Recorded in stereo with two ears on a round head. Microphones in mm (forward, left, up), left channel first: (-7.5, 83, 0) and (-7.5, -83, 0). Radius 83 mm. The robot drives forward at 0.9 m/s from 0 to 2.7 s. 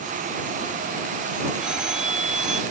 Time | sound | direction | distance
1.6 | a phone ringing | 5° right (ahead or behind) | ?